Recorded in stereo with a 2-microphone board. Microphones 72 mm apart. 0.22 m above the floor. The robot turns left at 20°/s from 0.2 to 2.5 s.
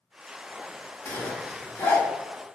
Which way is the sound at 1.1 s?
25° left (ahead or behind).